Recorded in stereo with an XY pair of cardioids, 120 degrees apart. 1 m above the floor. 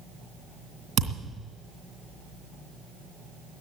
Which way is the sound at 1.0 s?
55° right.